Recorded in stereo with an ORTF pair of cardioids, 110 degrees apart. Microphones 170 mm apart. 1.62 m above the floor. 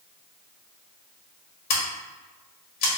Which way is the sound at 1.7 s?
70° left.